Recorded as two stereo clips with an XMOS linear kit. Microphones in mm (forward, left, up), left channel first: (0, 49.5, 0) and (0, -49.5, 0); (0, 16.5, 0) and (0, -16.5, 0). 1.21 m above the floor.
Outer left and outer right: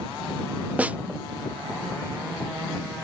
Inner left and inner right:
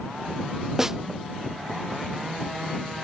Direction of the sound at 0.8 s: 15° right (ahead or behind).